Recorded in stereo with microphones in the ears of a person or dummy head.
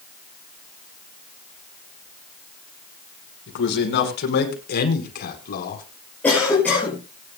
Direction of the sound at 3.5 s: 70° left (ahead or behind).